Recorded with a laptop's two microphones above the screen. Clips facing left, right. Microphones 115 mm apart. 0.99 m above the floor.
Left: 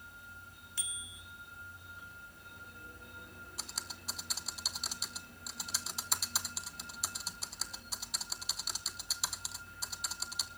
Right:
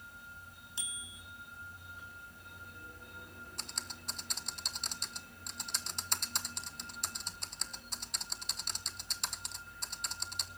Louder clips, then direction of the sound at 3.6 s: Left 1 dB; 5° left (ahead or behind).